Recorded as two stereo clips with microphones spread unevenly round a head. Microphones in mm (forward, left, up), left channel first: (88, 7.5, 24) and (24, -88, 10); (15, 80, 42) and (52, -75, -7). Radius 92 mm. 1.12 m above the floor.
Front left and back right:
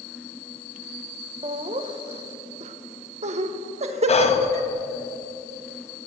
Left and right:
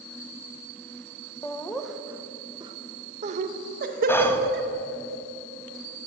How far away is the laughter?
About 1.0 m.